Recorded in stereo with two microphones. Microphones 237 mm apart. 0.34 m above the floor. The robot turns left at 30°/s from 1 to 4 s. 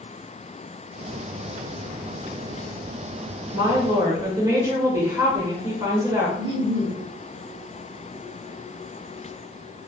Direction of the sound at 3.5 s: 15° right (ahead or behind).